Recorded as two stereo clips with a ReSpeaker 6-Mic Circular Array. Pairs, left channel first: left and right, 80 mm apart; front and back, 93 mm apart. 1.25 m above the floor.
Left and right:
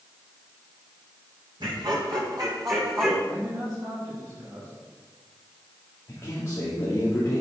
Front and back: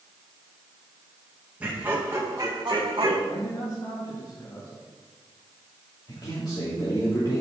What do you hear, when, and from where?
1.6 s laughter: 105° right, 1.6 m; by 3.2 s 155° right, 1.4 m
3.3 s a man speaking: 50° right, 2.5 m
6.1 s a man speaking: 40° left, 2.5 m